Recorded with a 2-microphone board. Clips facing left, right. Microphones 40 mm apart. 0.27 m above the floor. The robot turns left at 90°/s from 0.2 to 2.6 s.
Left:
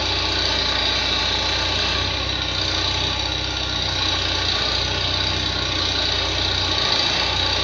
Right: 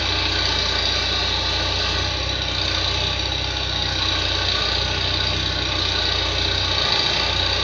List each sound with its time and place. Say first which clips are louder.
0.0 s an engine running: even; 155° right, 0.8 m; by 7.6 s 10° right, 0.8 m